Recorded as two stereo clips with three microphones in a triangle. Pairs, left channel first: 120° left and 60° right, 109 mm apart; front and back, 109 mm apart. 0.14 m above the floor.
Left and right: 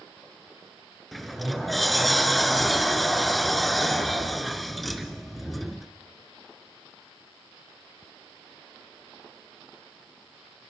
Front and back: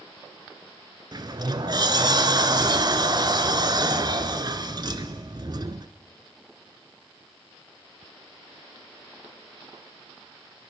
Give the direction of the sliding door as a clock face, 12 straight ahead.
5 o'clock.